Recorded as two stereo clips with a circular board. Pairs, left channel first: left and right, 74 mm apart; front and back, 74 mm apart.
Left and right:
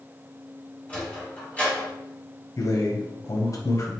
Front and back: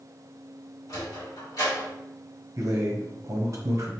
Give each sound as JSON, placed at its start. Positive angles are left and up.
{"t": 0.9, "sound": "a sliding door", "azimuth_deg": 25, "distance_m": 1.5}
{"t": 2.6, "sound": "a man speaking", "azimuth_deg": 135, "distance_m": 0.8}